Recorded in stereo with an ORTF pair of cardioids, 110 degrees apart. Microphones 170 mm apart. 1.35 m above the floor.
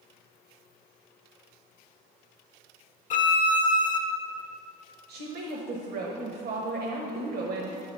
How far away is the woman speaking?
About 1.1 m.